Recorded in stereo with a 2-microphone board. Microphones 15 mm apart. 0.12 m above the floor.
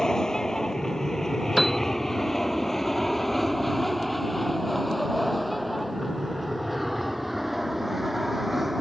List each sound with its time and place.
0.0 s an aircraft: 30° left (ahead or behind); by 8.8 s 15° right (ahead or behind)
1.6 s a piano: 10° left (ahead or behind)